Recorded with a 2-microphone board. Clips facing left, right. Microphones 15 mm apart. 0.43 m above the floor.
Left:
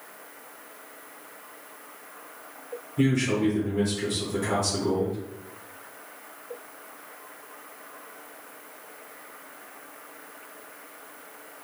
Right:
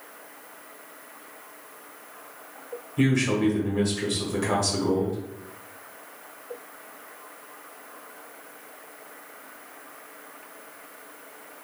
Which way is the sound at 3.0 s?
30° right (ahead or behind).